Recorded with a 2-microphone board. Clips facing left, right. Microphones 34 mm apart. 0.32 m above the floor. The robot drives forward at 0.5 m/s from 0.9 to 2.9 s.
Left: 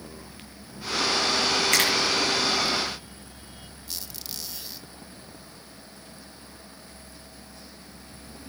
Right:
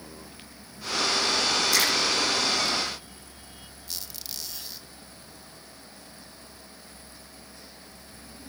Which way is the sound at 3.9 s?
5° left (ahead or behind).